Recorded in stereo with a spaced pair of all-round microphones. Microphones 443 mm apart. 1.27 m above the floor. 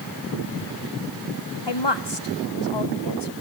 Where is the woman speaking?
65° left (ahead or behind), 1.4 m.